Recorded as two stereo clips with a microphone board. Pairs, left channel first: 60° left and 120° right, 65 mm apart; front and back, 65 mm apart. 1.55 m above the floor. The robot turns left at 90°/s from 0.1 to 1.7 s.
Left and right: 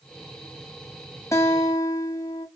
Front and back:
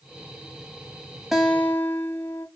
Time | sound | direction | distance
1.3 | a guitar | 95° left | 0.6 m